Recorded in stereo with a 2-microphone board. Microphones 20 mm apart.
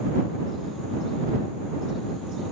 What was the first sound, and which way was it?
Only background noise.